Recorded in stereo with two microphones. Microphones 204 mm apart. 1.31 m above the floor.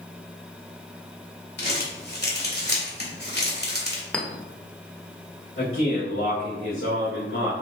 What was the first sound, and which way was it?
Crumpling, 55° left (ahead or behind).